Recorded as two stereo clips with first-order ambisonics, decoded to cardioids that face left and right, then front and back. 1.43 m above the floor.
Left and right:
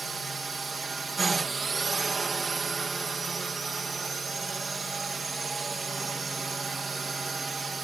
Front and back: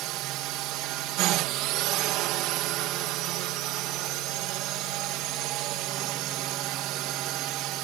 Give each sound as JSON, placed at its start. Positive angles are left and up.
{"t": 0.0, "sound": "a drone", "azimuth_deg": -165}